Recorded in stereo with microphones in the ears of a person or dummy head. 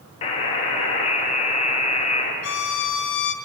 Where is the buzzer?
35° left (ahead or behind), 1.1 m.